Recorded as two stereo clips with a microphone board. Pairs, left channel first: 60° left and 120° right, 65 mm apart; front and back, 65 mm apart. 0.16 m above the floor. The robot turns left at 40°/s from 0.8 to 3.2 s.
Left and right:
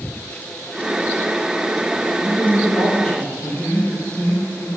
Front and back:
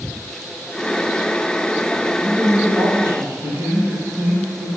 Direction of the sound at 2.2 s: 165° left.